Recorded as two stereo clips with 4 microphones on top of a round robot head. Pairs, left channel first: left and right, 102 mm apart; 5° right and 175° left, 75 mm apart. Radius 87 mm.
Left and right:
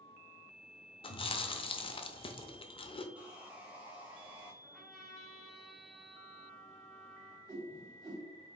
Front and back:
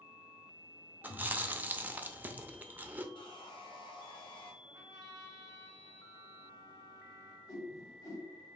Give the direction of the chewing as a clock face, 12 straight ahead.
8 o'clock.